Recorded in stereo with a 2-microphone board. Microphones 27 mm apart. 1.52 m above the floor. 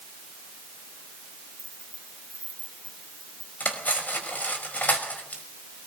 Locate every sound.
1.6 s keys jangling: 50° left (ahead or behind), 7.5 m; by 3.5 s 55° left (ahead or behind), 8.5 m
3.6 s cutlery clinking: 65° left (ahead or behind), 5 m